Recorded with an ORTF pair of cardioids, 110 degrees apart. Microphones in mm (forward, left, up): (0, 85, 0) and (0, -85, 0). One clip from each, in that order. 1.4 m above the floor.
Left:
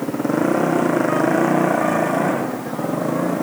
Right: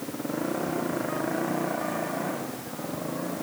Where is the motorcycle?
60° left.